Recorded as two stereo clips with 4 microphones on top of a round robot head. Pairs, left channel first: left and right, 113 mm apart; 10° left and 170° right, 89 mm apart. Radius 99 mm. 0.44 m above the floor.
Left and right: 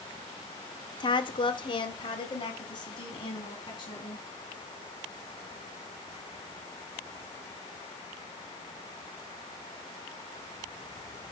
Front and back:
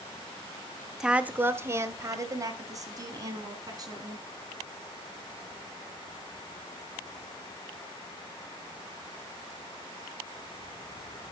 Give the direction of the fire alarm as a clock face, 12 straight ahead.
No fire alarm in this recording.